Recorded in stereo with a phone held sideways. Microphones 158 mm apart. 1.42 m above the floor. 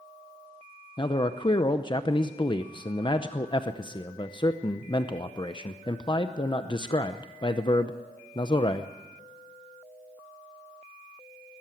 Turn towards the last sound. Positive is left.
turn(degrees=30)  # may be behind; listen again after turning